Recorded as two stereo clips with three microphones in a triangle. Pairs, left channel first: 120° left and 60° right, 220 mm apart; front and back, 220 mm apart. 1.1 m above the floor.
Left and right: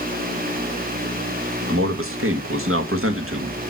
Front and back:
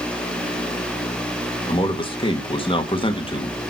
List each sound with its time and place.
1.7 s a man speaking: 65° right, 1.7 m